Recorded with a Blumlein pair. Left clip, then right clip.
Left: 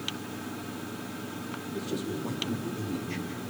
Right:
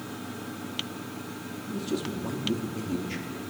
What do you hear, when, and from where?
1.7 s a man speaking: 15° right, 4 m